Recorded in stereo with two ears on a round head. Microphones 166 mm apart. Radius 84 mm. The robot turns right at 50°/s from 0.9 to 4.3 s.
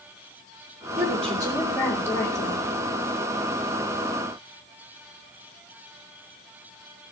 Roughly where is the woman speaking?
Ahead right.